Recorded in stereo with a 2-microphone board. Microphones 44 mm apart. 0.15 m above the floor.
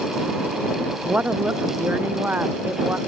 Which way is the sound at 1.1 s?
35° right (ahead or behind).